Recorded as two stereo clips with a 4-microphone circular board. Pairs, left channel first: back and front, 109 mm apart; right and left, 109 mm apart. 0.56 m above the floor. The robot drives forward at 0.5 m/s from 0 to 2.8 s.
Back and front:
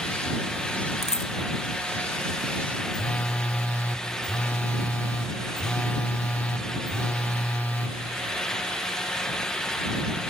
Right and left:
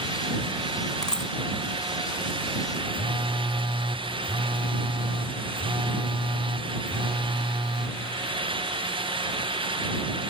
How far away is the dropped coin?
About 1.4 m.